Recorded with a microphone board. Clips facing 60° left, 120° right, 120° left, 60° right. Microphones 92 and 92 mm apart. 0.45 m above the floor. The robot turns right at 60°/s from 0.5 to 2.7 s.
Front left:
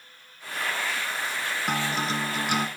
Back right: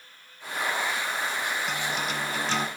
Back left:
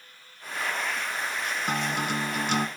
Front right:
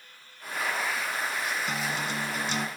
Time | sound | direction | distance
1.7 | a guitar | 85° left | 0.5 m